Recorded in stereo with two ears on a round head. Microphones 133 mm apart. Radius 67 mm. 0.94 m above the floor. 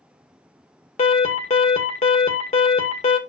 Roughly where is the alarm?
Left.